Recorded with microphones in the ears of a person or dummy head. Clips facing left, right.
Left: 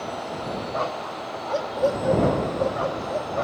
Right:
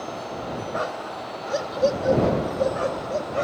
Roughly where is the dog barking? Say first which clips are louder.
Left 1 dB; centre.